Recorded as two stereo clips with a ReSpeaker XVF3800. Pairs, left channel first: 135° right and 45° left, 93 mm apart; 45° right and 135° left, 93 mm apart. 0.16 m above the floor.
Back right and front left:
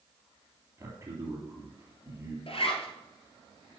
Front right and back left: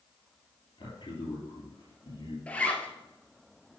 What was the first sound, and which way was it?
A man speaking, 15° right.